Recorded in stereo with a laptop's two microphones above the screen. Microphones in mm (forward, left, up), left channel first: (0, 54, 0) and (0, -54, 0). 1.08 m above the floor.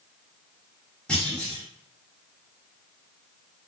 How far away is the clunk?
About 2.0 m.